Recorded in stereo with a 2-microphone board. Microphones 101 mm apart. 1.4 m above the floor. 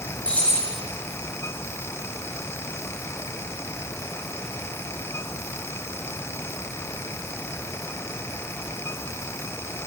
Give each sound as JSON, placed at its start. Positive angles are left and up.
{"t": 0.2, "sound": "keys jangling", "side_deg": 15, "distance_m": 3.5}